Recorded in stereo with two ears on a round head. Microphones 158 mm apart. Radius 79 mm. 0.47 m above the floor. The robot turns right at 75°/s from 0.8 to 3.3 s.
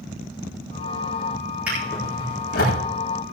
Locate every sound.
1.7 s a drawer: 10° right (ahead or behind), 10 m; by 2.8 s 75° left (ahead or behind), 10 m